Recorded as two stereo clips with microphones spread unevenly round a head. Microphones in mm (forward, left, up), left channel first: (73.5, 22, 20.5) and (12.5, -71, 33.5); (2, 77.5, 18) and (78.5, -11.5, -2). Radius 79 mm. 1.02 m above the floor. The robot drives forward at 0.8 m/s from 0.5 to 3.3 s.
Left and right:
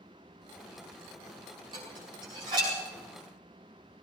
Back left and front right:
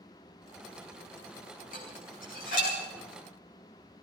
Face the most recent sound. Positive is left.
turn(degrees=175)